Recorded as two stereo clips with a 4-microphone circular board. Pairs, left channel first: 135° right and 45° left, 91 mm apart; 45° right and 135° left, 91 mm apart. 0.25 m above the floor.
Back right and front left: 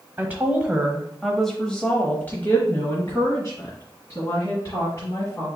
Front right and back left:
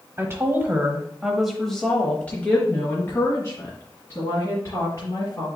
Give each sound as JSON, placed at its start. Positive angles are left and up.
{"t": 0.2, "sound": "a woman speaking", "azimuth_deg": 100, "distance_m": 1.1}